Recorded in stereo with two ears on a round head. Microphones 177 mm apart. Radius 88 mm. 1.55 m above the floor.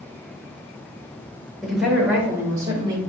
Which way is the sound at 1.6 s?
Centre (ahead or behind).